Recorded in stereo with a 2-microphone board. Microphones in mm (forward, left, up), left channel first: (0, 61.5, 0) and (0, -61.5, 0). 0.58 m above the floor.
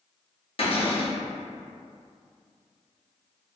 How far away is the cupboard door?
About 1.0 m.